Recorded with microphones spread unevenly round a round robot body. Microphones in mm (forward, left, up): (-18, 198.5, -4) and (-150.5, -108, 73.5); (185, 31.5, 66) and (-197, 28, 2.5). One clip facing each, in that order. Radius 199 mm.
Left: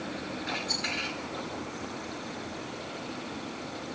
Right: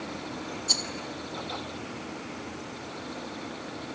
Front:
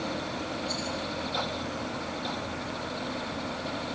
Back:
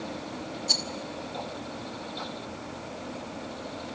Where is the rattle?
150° right, 2.5 m.